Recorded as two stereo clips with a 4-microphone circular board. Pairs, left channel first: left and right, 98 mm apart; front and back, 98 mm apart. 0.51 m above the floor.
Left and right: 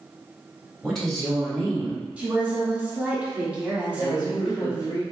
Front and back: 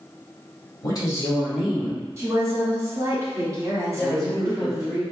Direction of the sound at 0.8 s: Straight ahead.